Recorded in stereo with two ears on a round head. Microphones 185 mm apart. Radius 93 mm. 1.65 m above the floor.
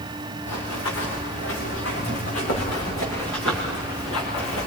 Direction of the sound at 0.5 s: 70° left (ahead or behind).